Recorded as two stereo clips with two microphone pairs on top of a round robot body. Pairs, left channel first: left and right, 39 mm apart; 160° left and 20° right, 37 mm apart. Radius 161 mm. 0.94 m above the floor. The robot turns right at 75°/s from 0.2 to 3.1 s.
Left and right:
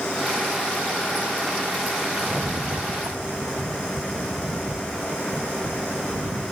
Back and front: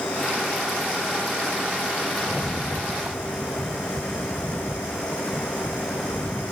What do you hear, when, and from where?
2.2 s a rattle: 155° right, 0.7 m; by 6.4 s 85° right, 0.7 m